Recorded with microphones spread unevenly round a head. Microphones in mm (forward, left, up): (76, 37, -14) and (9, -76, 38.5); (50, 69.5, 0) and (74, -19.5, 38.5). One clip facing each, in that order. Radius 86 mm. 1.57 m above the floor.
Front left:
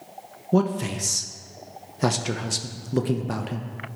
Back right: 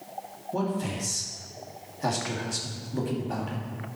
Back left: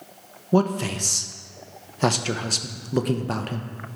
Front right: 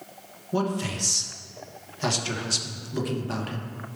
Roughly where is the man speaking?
Ahead left.